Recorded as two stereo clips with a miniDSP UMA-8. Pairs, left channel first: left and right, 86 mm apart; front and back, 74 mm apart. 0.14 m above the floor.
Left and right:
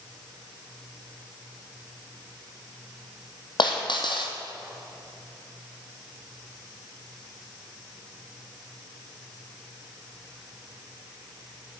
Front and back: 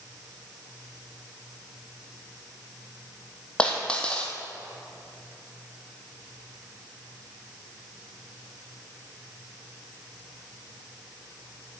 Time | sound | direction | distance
3.6 | a dropped coin | 75° left | 1.9 m